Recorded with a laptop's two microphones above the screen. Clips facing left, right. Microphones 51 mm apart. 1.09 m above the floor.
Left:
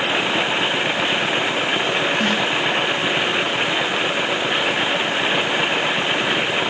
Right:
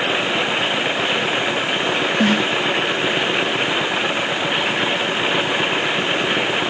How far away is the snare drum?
About 1.8 m.